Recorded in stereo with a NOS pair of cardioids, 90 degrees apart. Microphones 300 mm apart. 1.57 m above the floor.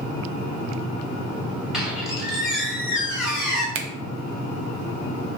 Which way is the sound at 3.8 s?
45° right.